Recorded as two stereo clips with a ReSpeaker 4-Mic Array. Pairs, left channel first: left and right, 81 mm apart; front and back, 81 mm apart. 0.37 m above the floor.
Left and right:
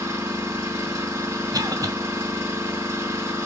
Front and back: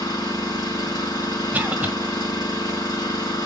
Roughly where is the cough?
Behind right.